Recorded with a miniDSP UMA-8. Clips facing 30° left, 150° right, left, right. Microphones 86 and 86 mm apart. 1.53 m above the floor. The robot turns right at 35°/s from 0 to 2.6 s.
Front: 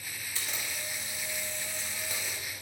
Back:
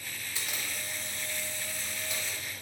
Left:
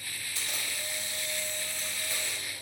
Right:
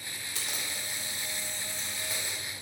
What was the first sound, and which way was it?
A camera shutter, 80° right.